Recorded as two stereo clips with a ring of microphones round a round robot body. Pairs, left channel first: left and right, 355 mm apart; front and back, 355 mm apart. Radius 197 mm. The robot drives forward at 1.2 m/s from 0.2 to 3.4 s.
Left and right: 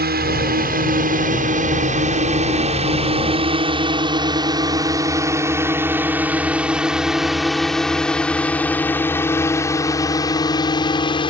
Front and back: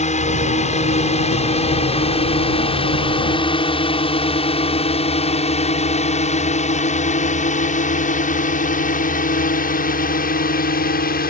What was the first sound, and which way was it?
A drone, 50° right.